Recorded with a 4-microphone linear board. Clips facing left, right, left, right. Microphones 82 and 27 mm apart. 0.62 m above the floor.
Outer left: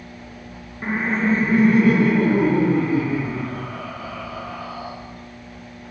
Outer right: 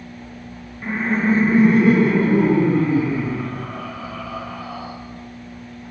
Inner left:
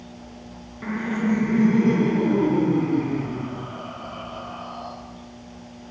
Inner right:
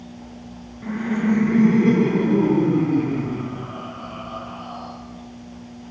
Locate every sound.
0.8 s laughter: 30° left (ahead or behind), 0.6 m; by 4.9 s 50° right (ahead or behind), 5.5 m